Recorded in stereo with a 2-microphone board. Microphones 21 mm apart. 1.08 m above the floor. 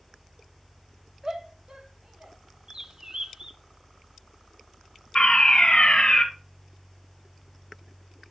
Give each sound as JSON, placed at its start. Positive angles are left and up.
{"t": 1.2, "sound": "a shout", "side_deg": -35, "distance_m": 1.8}
{"t": 2.7, "sound": "a bird", "side_deg": -35, "distance_m": 0.8}
{"t": 5.2, "sound": "a fire alarm", "side_deg": 40, "distance_m": 2.0}